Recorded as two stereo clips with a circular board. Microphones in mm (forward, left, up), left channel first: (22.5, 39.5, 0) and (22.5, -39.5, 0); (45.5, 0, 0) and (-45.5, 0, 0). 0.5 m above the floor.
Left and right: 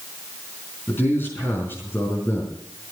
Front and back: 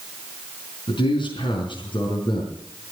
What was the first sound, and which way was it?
A man speaking, 25° left.